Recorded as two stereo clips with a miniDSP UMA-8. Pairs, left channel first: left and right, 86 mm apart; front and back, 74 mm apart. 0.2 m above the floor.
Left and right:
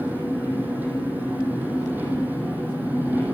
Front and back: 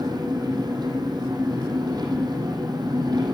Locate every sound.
0.0 s an engine running: 160° right, 5 m